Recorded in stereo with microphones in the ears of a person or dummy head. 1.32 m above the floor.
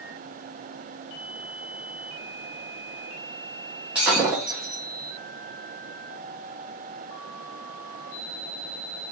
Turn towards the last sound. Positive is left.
turn(degrees=-5)  # may be behind; listen again after turning